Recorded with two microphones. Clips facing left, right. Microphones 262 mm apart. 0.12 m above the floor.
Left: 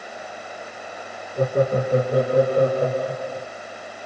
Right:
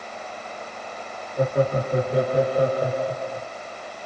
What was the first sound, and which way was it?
Laughter, 45° left (ahead or behind).